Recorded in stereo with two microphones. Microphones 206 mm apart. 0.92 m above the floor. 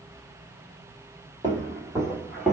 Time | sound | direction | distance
1.4 | footsteps | 25° right (ahead or behind) | 1.8 m